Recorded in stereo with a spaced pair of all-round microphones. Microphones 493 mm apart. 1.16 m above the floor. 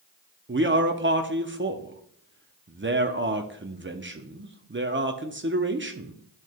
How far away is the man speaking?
About 0.6 m.